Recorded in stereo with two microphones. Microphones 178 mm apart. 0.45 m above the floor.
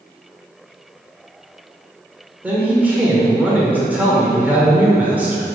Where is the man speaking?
10° right (ahead or behind), 1.6 m.